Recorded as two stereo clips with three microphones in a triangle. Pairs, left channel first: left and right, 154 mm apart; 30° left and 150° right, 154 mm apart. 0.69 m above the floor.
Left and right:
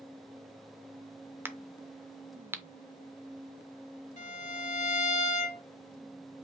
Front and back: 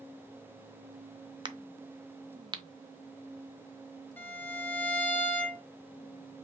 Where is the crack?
150° right, 0.5 m.